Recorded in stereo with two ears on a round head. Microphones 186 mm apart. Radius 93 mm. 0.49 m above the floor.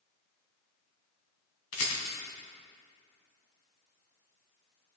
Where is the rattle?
70° left (ahead or behind), 3 m.